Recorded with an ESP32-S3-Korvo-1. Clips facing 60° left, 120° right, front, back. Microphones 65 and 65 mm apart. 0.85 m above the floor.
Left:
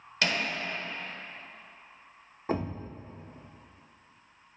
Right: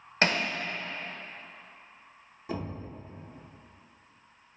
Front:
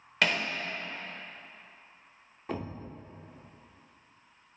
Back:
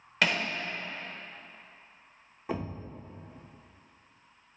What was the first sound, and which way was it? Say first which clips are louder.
Hammering: right 3 dB, even; 90° right.